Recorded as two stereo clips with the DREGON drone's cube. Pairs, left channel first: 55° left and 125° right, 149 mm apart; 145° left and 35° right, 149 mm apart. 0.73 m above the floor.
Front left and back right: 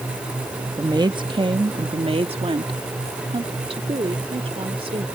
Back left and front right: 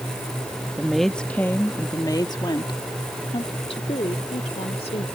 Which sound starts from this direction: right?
A woman speaking, at 0.8 s.